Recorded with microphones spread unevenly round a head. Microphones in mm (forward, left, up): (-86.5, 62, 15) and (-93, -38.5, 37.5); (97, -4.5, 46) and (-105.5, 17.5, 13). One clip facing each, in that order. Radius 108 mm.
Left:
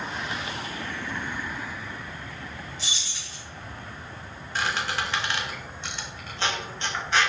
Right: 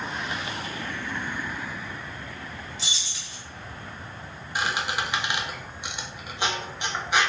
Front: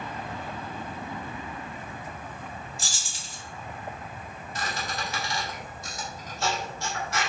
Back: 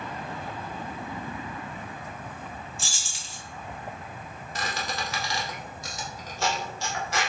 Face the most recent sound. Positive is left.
turn(degrees=-170)